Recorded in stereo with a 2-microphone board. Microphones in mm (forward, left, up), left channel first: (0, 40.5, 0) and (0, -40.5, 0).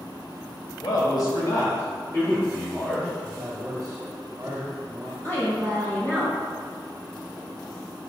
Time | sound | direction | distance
0.8 | a man speaking | 55° left (ahead or behind) | 1.5 m
3.2 | a man speaking | 35° right (ahead or behind) | 1.7 m
5.2 | a woman speaking | 20° left (ahead or behind) | 2 m